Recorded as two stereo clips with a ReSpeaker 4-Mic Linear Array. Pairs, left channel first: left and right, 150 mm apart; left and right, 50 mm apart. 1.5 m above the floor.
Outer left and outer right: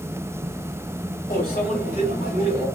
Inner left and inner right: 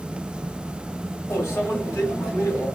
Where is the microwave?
85° left, 2 m.